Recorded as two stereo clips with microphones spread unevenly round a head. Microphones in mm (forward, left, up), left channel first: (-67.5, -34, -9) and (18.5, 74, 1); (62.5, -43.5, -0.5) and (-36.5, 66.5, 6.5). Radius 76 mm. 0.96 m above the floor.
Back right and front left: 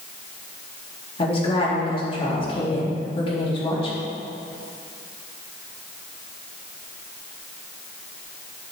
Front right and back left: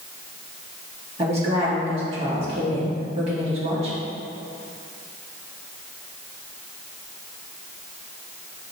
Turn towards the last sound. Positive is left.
turn(degrees=-175)